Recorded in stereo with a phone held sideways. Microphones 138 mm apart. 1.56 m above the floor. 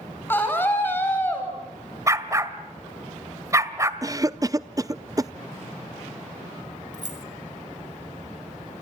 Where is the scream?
15° left (ahead or behind), 10 m.